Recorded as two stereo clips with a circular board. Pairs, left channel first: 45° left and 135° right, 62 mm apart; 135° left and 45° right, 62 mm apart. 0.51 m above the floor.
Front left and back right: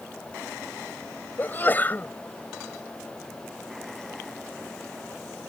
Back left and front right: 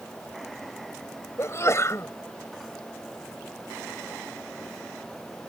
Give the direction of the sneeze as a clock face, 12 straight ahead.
9 o'clock.